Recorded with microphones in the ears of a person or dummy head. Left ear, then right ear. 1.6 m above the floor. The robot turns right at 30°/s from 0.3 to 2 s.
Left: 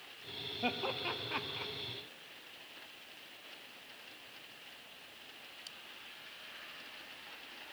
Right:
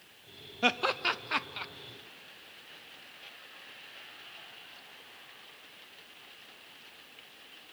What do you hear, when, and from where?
0.6 s laughter: 55° right (ahead or behind), 0.6 m; by 1.7 s 20° right (ahead or behind), 0.6 m